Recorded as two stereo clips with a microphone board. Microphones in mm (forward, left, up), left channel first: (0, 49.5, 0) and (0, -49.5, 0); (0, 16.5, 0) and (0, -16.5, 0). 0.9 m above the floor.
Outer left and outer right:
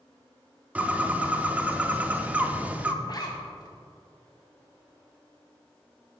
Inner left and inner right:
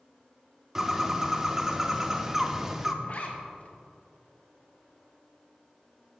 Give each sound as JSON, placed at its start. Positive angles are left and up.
{"t": 0.8, "sound": "a bird", "side_deg": -15, "distance_m": 0.6}
{"t": 3.0, "sound": "a zipper", "side_deg": 40, "distance_m": 1.1}